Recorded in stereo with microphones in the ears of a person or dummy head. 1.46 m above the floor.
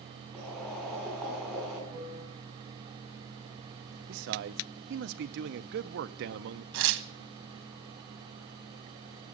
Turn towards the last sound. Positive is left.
turn(degrees=-80)